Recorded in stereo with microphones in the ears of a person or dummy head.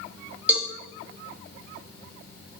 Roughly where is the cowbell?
Centre.